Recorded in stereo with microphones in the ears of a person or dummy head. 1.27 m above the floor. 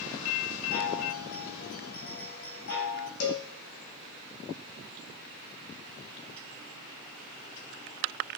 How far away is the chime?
About 5 m.